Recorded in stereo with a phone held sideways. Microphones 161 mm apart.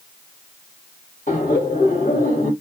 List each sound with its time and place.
1.3 s laughter: 50° left (ahead or behind), 1.6 m